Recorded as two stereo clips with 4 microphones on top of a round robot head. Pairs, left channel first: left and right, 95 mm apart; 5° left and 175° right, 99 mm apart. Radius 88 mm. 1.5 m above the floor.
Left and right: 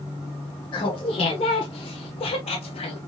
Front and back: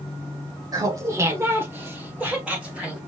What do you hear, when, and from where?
0.7 s laughter: 135° left, 1.0 m; by 3.0 s 100° left, 1.8 m